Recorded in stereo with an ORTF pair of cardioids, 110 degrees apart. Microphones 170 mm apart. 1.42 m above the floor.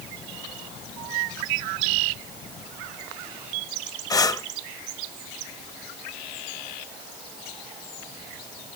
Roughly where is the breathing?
Ahead.